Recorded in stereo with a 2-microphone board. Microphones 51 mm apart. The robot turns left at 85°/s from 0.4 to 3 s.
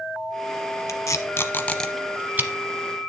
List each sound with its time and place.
0.9 s tape being pulled: 85° left, 0.8 m; by 2.5 s 45° right (ahead or behind), 0.8 m